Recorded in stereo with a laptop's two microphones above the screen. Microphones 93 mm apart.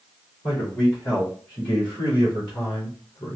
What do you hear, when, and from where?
0.4 s a man speaking: 15° left (ahead or behind), 3 m; by 3.4 s 35° left (ahead or behind), 0.9 m